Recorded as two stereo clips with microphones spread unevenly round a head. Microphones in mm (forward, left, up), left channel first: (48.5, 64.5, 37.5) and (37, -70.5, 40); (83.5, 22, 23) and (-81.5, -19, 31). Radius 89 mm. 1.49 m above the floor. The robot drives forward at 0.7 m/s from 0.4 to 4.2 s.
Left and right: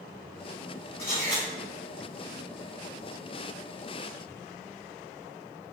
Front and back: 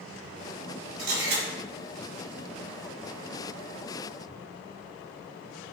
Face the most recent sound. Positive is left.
turn(degrees=170)